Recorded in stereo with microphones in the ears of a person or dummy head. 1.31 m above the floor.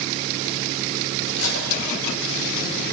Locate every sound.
1.3 s cutlery clinking: 75° left (ahead or behind), 4.5 m